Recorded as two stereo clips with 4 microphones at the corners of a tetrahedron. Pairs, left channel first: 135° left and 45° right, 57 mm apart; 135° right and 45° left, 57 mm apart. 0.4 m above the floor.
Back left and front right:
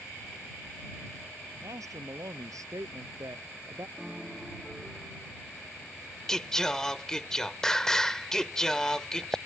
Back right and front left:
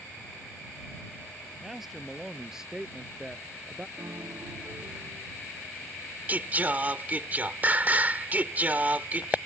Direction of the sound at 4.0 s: 40° left.